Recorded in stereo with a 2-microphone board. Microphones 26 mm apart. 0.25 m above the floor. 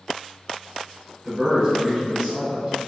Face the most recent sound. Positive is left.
turn(degrees=-30)  # may be behind; listen again after turning